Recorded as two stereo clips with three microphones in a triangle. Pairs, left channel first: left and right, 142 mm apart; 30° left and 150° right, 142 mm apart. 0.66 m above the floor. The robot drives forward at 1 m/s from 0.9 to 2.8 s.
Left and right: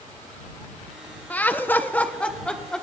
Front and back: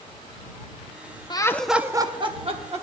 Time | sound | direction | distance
1.3 | laughter | 20° left | 0.6 m